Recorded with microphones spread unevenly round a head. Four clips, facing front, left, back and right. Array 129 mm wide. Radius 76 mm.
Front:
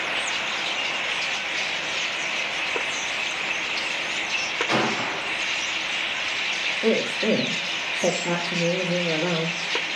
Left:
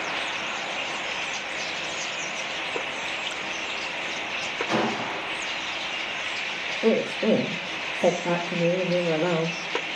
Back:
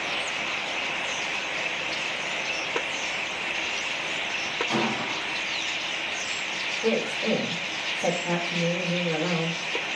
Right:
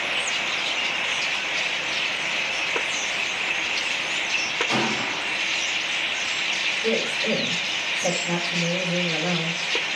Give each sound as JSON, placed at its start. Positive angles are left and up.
{"t": 4.7, "sound": "a gunshot", "azimuth_deg": -5, "distance_m": 4.0}
{"t": 6.8, "sound": "a woman speaking", "azimuth_deg": 45, "distance_m": 2.5}